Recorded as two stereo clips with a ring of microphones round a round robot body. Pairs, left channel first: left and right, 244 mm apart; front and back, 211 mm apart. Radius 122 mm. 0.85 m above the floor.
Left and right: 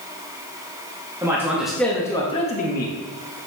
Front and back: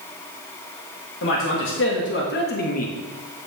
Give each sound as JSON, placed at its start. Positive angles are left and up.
{"t": 1.2, "sound": "a man speaking", "azimuth_deg": -15, "distance_m": 1.4}